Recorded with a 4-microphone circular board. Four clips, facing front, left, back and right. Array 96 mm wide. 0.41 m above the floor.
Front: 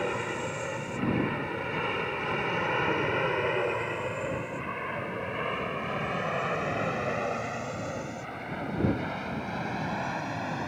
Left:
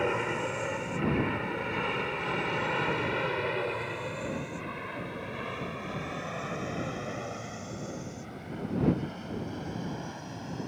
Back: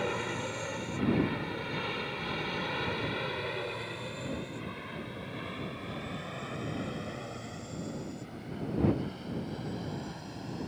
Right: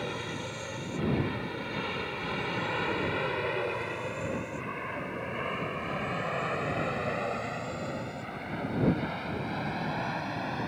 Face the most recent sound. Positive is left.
turn(degrees=-35)